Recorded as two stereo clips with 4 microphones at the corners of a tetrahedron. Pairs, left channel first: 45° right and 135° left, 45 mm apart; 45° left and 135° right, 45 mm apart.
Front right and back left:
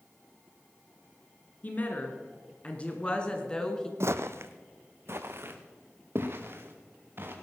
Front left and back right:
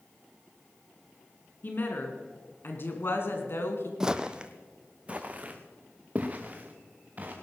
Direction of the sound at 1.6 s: 5° left.